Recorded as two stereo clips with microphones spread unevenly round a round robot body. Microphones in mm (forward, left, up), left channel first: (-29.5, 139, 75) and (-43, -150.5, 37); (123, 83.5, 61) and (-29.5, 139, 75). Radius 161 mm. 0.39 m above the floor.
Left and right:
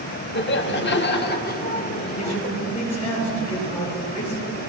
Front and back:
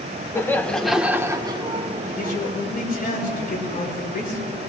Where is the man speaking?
5° left, 6.5 m.